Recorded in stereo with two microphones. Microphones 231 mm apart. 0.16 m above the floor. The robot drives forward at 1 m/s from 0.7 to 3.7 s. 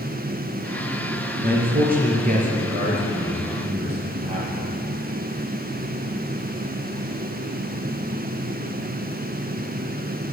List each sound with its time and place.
1.4 s a man speaking: 45° right (ahead or behind), 3 m; by 4.7 s 25° right (ahead or behind), 4.5 m